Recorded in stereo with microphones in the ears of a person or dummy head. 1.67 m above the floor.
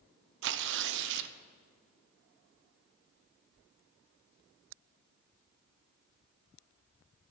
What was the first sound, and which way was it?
Tearing paper, 65° right (ahead or behind).